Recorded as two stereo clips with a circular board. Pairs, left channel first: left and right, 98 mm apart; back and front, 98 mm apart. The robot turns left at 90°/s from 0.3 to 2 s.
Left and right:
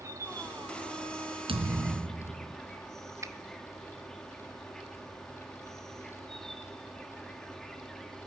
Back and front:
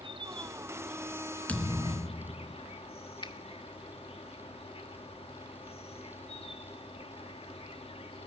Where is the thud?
105° right, 3 m; by 2.5 s 150° right, 3 m.